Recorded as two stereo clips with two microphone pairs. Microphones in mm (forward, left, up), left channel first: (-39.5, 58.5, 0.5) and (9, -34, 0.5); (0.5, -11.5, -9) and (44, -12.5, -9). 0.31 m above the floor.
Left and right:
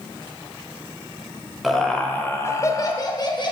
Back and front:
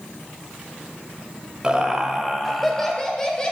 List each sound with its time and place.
1.6 s laughter: 30° left, 1.0 m; by 3.5 s 110° left, 1.5 m